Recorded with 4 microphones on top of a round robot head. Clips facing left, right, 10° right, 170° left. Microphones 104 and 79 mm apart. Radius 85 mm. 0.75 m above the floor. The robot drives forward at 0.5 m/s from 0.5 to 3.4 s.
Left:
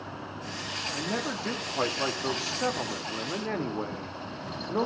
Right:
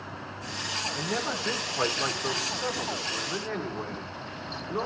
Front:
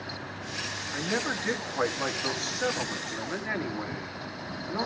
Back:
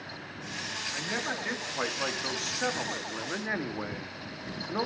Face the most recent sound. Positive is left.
turn(degrees=95)